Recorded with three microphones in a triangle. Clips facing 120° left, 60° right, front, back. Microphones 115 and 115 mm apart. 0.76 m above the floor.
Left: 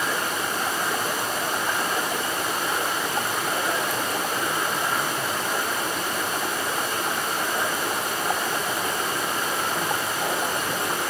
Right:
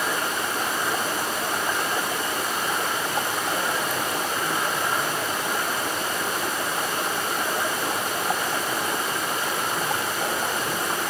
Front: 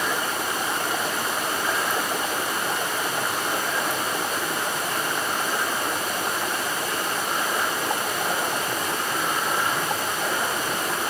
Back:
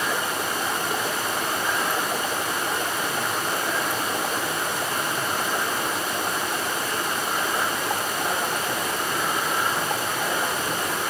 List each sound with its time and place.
Only background noise.